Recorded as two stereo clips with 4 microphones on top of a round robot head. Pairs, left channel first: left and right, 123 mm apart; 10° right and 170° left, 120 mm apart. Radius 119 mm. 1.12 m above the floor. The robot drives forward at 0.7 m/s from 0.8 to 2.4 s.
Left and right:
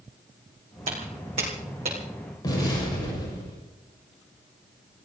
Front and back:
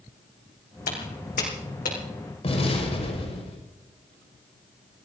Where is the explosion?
30° left, 6 m.